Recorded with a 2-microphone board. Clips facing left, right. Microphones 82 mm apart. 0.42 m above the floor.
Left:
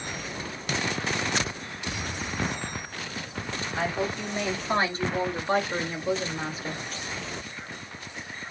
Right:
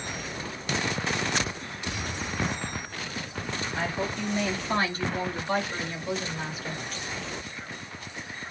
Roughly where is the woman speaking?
Left.